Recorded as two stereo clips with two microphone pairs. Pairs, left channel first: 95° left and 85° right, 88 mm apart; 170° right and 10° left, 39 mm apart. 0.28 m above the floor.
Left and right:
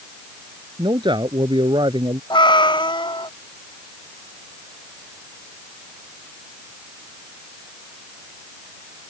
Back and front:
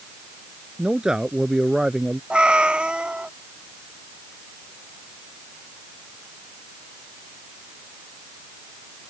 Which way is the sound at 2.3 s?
70° left.